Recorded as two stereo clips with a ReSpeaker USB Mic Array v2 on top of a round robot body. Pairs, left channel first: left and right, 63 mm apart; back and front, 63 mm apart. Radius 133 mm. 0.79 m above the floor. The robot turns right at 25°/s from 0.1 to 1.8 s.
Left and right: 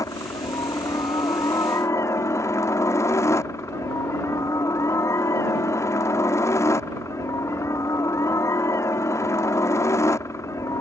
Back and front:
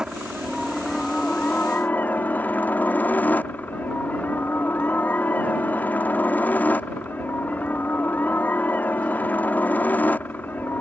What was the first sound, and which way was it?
A helicopter, 80° left.